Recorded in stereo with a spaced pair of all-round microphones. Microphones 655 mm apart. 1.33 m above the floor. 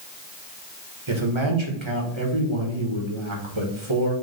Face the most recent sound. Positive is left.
turn(degrees=-45)  # may be behind; listen again after turning